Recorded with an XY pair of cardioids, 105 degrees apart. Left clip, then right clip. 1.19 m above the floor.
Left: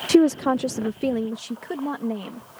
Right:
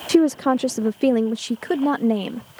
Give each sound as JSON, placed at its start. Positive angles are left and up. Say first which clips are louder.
{"t": 0.1, "sound": "a woman speaking", "louder": "right 1 dB", "azimuth_deg": 10}